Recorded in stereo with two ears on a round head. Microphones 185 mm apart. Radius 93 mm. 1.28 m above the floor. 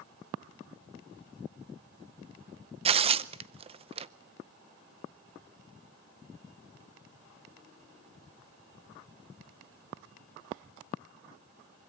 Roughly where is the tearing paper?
Right.